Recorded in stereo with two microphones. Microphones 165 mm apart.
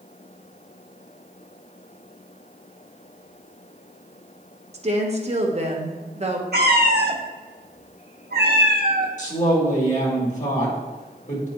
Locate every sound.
4.7 s a woman speaking: 45° right (ahead or behind), 1.0 m
6.5 s a cat meowing: 80° right, 0.9 m
9.2 s a woman speaking: 50° left (ahead or behind), 1.9 m